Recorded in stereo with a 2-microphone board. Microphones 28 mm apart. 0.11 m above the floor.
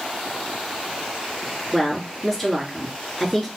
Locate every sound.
1.7 s a woman speaking: 10° left (ahead or behind), 1.7 m